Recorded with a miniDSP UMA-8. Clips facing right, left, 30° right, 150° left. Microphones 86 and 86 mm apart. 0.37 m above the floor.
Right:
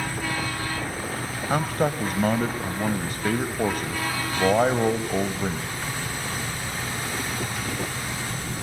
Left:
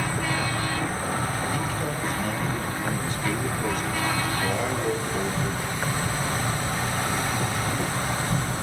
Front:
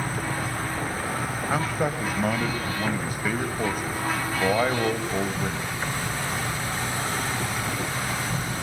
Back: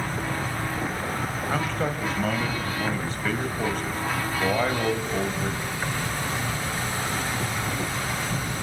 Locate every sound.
0.0 s an insect: 55° left, 3 m
1.5 s a man speaking: 110° right, 1.7 m